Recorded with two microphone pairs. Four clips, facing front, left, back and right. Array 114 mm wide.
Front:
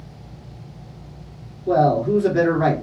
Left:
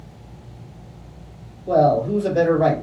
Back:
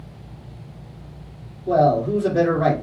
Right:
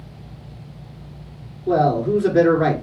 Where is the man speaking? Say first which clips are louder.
Left 1 dB, even; 50° right, 1.7 m.